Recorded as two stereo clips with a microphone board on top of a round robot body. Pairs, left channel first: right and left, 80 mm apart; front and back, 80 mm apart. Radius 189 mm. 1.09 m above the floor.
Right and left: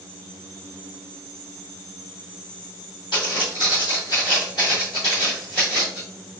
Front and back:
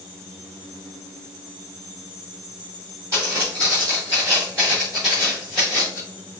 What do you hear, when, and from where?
3.1 s footsteps: 120° right, 1.7 m; by 6.0 s 35° left, 1.0 m